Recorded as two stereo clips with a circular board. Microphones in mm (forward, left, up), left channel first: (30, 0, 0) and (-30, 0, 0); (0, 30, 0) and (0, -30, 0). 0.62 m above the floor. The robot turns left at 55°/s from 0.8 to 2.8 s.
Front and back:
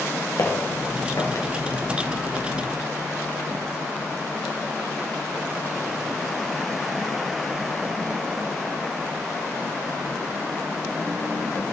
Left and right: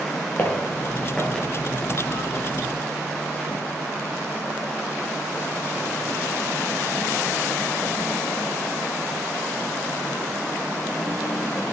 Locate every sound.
0.4 s footsteps: 35° left, 3.5 m; by 1.5 s straight ahead, 4 m